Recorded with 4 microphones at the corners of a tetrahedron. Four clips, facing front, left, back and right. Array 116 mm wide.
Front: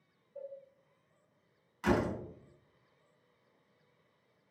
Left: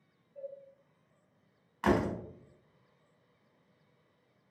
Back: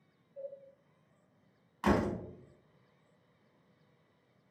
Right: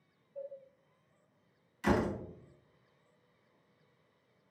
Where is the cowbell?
5° right, 1.2 m.